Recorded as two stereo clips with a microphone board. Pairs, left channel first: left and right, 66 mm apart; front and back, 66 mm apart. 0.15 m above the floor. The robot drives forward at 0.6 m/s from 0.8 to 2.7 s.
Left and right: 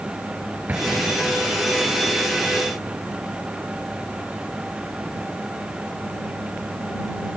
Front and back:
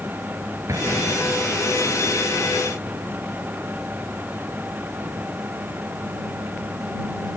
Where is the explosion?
150° right; by 1.6 s 165° right.